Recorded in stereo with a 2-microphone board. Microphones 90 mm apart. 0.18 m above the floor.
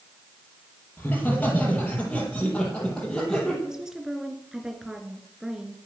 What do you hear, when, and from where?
1.0 s laughter: 20° left (ahead or behind), 5 m; by 3.5 s 5° left (ahead or behind), 6.5 m
3.6 s a woman speaking: 5° right (ahead or behind), 2 m